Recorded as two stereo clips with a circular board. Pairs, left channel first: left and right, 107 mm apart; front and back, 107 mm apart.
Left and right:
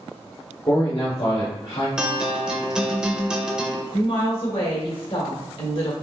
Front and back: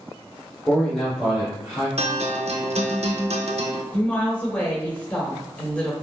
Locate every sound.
0.7 s a man speaking: 70° left, 1.0 m; by 1.9 s 105° left, 2.0 m
2.0 s a guitar: 175° right, 0.7 m
3.9 s a woman speaking: 75° left, 1.7 m